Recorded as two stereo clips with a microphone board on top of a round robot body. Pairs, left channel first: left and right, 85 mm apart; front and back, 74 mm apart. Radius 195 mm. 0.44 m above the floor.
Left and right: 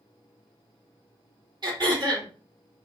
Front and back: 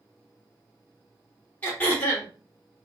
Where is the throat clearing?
60° right, 2.5 m.